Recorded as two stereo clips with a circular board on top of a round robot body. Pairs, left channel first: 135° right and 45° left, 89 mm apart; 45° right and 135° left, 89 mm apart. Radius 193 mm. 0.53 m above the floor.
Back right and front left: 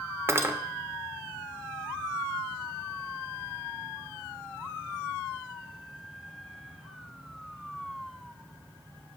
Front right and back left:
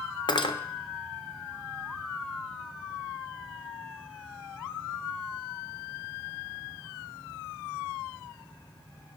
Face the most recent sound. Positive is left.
turn(degrees=-15)